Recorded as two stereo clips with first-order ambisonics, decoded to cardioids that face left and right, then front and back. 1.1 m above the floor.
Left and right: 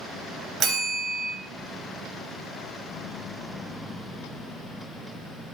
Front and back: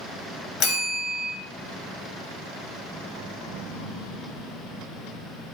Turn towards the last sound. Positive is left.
turn(degrees=-35)